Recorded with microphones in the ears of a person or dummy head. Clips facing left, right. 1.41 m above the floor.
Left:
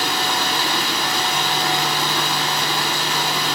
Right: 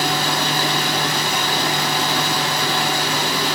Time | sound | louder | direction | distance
0.0 | running water | right 2 dB | 50° right (ahead or behind) | 5 m